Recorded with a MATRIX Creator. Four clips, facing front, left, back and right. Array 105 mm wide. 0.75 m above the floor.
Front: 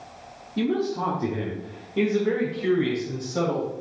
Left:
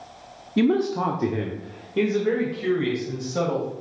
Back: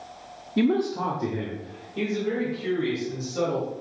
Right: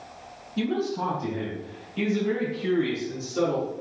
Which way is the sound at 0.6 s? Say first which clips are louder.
Left 6 dB, back 2 dB; 120° left.